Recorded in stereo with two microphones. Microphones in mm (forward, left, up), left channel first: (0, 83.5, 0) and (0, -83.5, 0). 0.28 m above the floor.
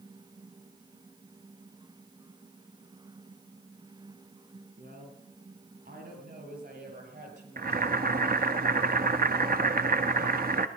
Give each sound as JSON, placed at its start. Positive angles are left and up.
{"t": 4.8, "sound": "a woman speaking", "side_deg": -75, "distance_m": 6.0}
{"t": 7.6, "sound": "boiling", "side_deg": -65, "distance_m": 0.8}